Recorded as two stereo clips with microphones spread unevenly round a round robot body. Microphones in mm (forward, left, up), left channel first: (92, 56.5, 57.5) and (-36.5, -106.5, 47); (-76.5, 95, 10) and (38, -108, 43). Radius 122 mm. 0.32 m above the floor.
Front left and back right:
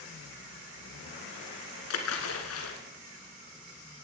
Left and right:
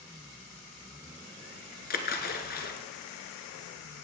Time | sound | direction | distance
1.9 | a splash | 65° left | 1.2 m